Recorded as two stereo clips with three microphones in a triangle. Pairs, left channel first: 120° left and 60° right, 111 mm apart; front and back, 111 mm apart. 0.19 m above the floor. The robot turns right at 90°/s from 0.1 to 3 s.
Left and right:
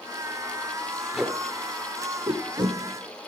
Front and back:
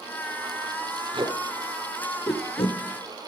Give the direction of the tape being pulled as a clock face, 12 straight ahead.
5 o'clock.